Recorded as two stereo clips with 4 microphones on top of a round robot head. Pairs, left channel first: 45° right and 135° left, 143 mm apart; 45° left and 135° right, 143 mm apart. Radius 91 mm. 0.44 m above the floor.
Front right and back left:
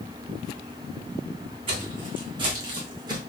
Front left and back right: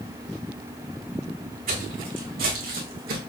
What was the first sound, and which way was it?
Footsteps, 165° right.